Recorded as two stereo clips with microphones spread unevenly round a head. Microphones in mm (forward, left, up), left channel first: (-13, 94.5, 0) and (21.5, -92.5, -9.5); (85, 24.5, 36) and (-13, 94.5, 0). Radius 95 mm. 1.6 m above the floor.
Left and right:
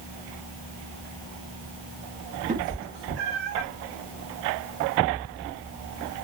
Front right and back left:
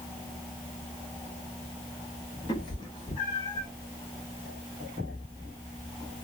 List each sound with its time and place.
2.5 s a cat meowing: 35° right, 1.2 m; by 3.7 s 85° right, 1.7 m